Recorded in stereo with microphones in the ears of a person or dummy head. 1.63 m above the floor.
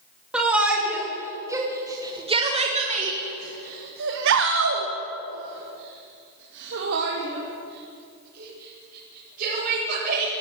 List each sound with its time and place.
0.3 s a shout: 5° right (ahead or behind), 3 m; by 10.3 s 50° right (ahead or behind), 5.5 m